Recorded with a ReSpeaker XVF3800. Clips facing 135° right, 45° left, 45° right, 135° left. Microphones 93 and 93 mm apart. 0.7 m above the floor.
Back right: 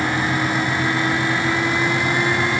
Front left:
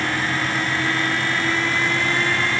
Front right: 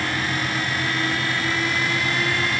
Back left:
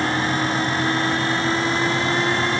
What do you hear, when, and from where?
Only background noise.